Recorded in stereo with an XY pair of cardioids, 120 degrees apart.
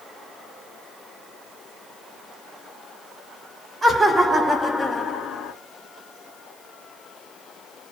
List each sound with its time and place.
3.8 s laughter: 20° right, 0.8 m; by 5.5 s 60° left, 0.6 m